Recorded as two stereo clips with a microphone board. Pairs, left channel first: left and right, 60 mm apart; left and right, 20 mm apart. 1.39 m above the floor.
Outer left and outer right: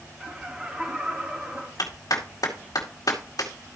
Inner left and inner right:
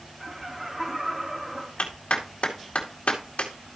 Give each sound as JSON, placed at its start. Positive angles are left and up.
{"t": 0.2, "sound": "laughter", "side_deg": -15, "distance_m": 2.0}
{"t": 1.8, "sound": "a clap", "side_deg": 80, "distance_m": 2.0}